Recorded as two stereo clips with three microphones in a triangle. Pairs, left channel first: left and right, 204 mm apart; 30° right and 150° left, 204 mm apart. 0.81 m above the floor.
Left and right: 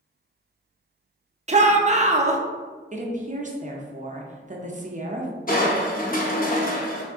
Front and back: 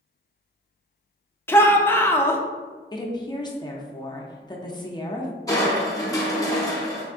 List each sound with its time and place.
1.5 s a shout: 100° right, 0.5 m
2.9 s a woman speaking: 85° right, 0.5 m
5.5 s crushing: 40° left, 0.8 m